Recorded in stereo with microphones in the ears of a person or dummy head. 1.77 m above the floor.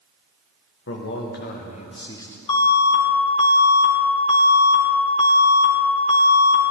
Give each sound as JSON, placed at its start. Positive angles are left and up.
{"t": 0.9, "sound": "a man speaking", "side_deg": 65, "distance_m": 1.8}
{"t": 2.5, "sound": "an alarm", "side_deg": 40, "distance_m": 2.5}